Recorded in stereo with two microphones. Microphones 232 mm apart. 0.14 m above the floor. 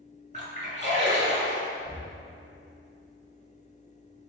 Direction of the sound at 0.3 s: 30° right (ahead or behind).